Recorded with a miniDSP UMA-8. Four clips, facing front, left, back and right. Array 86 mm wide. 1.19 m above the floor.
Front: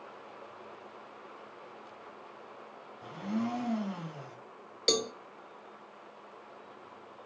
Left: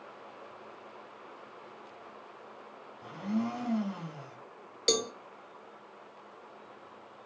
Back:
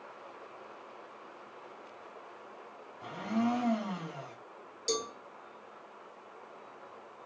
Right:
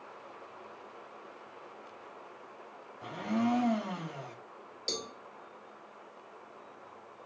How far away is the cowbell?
About 1.0 m.